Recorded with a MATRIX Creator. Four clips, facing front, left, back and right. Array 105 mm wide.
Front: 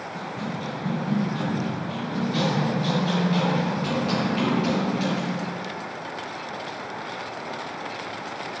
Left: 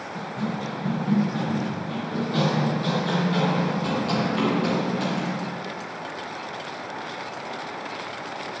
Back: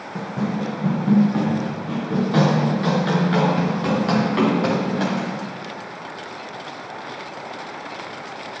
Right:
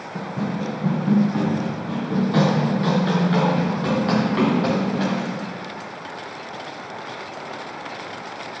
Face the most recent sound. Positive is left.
turn(degrees=-150)